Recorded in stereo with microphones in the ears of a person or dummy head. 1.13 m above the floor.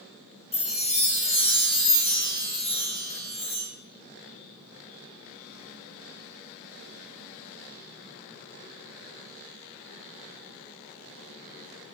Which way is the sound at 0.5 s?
30° left (ahead or behind).